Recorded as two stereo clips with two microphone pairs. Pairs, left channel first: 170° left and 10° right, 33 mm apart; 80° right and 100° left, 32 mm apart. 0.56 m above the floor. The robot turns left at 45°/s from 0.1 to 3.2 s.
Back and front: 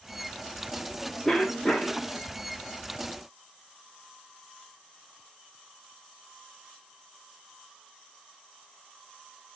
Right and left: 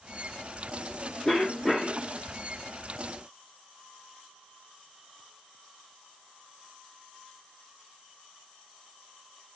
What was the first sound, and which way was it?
A cough, 120° right.